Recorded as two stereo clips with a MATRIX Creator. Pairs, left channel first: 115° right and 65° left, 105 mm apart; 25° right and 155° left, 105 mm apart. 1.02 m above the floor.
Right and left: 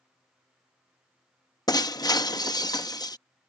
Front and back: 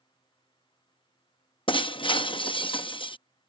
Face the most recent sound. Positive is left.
turn(degrees=-60)